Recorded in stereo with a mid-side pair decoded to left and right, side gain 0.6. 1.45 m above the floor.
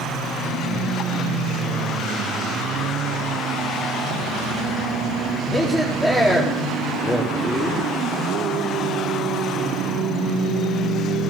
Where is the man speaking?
Straight ahead, 4 m.